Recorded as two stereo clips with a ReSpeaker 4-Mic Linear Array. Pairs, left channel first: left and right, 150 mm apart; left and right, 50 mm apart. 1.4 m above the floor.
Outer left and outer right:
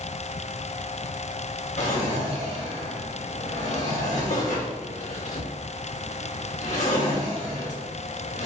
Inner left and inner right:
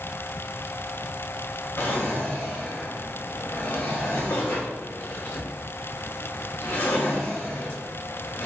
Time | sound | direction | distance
1.8 | a drawer | 55° left (ahead or behind) | 1.3 m